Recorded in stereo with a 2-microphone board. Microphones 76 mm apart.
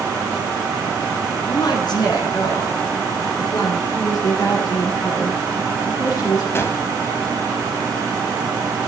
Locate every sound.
1.5 s a woman speaking: 65° left (ahead or behind), 2.5 m
3.9 s a woman speaking: 60° left (ahead or behind), 6 m
6.5 s a gunshot: 35° left (ahead or behind), 1.1 m